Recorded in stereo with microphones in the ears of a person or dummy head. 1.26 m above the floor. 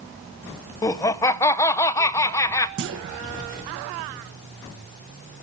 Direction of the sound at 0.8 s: 15° left (ahead or behind).